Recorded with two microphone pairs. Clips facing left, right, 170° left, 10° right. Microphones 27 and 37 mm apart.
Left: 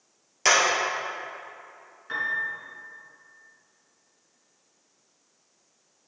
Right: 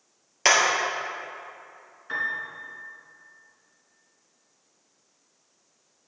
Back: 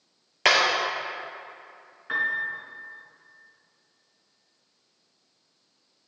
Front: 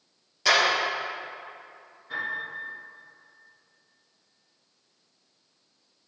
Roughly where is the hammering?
Behind right.